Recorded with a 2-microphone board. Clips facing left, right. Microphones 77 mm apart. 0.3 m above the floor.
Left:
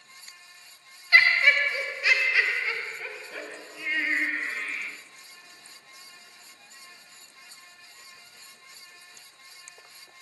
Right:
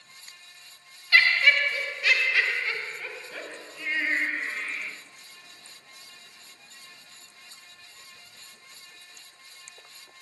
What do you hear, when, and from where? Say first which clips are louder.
1.1 s laughter: left 1 dB; 20° left (ahead or behind), 1.0 m; by 4.9 s centre (ahead or behind), 2.5 m